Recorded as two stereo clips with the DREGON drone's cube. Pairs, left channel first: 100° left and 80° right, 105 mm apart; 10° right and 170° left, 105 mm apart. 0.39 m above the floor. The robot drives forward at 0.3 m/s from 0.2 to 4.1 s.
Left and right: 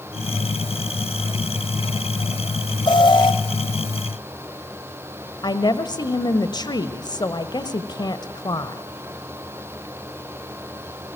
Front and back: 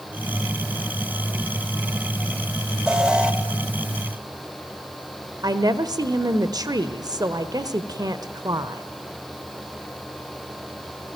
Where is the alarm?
85° left, 2.5 m; by 3.3 s 90° left, 2.5 m.